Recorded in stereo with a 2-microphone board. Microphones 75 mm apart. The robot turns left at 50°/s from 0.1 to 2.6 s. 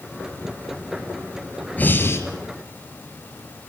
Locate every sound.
1.8 s breathing: 20° left (ahead or behind), 2.5 m; by 2.2 s 35° left (ahead or behind), 2.5 m